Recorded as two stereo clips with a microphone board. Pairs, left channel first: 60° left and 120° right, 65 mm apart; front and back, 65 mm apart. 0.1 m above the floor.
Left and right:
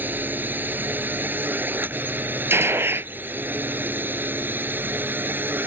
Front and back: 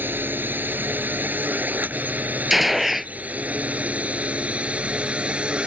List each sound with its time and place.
0.0 s a drone: 155° right; by 5.7 s 125° right
2.5 s a gunshot: 95° right